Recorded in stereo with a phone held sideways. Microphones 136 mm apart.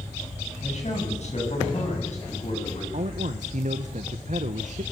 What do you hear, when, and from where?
0.6 s a man speaking: 55° left (ahead or behind), 8 m
2.9 s a man speaking: 60° right (ahead or behind), 1.1 m